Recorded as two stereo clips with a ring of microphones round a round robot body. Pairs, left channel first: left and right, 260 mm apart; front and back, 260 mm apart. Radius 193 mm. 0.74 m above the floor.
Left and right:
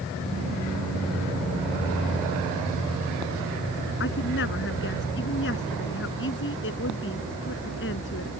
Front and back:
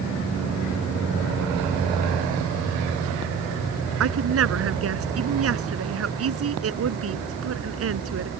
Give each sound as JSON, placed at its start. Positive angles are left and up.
{"t": 4.0, "sound": "a woman speaking", "azimuth_deg": 150}